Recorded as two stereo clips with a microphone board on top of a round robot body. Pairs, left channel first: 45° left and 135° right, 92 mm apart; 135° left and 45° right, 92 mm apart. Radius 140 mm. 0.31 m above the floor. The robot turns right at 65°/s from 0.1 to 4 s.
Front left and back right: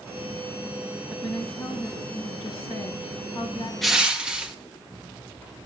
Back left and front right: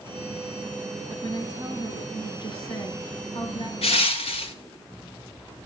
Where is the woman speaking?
55° right, 6.5 m; by 3.7 s 115° left, 6.5 m.